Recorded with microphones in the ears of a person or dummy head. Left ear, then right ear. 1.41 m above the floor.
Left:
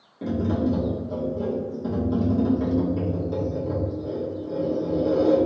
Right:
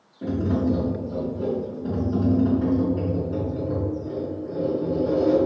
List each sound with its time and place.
0.2 s tapping: 85° left, 1.5 m